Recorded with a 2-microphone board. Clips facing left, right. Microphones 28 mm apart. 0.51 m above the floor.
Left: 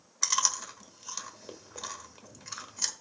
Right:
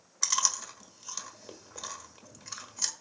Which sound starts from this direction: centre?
Chewing, at 0.2 s.